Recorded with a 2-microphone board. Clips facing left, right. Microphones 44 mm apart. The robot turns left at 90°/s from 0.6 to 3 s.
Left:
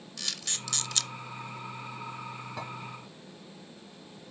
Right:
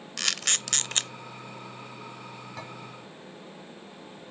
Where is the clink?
10° left (ahead or behind), 3.5 m; by 2.7 s 20° left (ahead or behind), 3.5 m.